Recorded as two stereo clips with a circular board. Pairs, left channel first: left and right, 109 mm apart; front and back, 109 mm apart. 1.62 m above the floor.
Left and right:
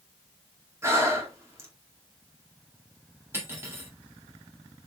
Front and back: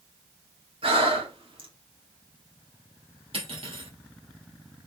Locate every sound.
0.8 s breathing: 155° right, 2 m
3.3 s cutlery clinking: 155° right, 2.5 m